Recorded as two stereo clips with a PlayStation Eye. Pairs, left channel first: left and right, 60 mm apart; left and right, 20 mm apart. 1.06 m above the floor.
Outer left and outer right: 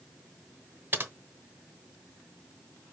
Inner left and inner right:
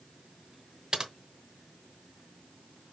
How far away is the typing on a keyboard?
About 0.9 m.